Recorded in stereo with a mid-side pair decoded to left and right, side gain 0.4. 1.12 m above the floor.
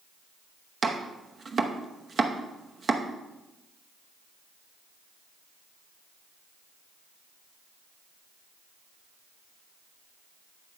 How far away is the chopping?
About 0.9 m.